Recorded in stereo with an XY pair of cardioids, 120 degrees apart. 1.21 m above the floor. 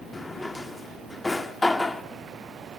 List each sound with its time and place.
0.1 s a drawer: 15° left, 1.6 m